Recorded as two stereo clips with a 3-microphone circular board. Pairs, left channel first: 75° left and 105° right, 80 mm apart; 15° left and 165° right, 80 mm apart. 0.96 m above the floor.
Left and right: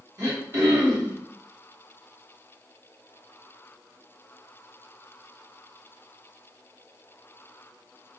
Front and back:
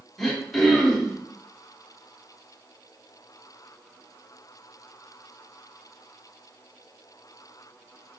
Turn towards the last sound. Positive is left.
turn(degrees=-70)